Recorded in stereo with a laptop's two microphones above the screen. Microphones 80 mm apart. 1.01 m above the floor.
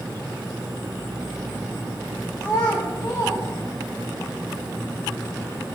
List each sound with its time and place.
2.4 s a child speaking: 35° left (ahead or behind), 0.5 m; by 4.1 s 70° left (ahead or behind), 1.6 m